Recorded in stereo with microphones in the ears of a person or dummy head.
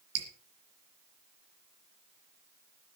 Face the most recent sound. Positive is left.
turn(degrees=-70)  # may be behind; listen again after turning